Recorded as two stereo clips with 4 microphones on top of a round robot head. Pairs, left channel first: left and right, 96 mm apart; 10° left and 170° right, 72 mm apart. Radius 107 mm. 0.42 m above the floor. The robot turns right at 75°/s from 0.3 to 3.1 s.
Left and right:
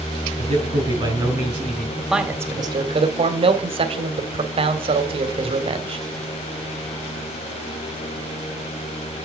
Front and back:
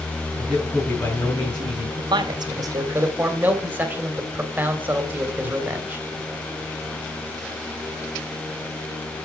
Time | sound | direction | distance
0.4 | a man speaking | 105° right | 6.5 m
2.0 | a man speaking | 175° left | 3 m